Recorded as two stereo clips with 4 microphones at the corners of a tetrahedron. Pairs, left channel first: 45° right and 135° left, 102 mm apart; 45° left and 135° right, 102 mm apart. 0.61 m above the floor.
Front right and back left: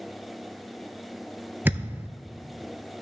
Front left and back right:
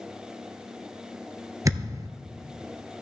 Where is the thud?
165° right, 0.7 m.